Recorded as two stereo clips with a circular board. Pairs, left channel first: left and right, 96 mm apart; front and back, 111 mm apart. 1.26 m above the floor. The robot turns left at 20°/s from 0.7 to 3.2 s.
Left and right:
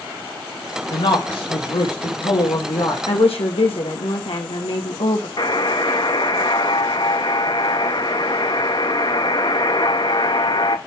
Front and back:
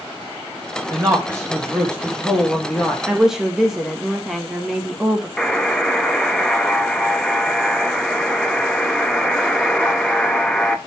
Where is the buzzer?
80° left, 0.7 m.